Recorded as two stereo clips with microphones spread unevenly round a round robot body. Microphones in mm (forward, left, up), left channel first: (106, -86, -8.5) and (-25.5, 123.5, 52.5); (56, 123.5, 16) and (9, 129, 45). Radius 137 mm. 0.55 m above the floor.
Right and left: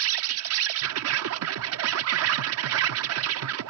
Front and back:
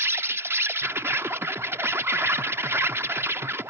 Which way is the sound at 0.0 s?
110° left.